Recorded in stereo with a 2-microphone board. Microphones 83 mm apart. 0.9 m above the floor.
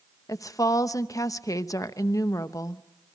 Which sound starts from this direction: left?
A woman speaking, at 0.3 s.